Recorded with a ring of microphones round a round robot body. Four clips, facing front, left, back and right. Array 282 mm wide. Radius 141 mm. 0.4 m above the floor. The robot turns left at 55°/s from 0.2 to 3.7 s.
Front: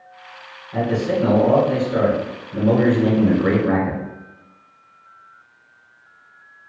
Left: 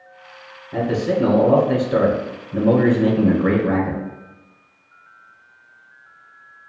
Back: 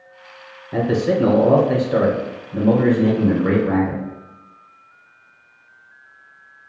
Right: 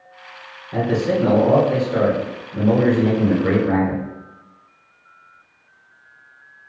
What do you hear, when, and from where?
0.7 s a man speaking: 165° right, 2.0 m; by 4.0 s 30° left, 2.0 m